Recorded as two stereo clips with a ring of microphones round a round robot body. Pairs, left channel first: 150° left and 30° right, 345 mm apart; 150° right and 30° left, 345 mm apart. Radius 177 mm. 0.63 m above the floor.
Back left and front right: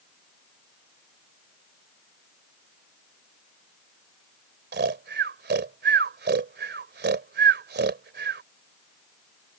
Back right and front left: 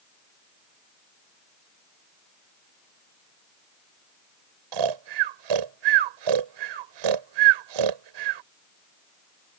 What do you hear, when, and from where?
4.7 s snoring: 30° left